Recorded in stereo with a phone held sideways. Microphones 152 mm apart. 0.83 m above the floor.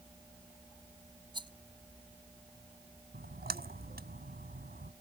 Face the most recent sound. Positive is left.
turn(degrees=-85)